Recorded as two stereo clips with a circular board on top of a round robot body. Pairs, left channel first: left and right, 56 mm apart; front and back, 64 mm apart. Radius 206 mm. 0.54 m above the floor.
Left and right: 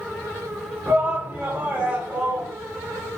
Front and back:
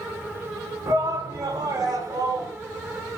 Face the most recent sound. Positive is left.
turn(degrees=-160)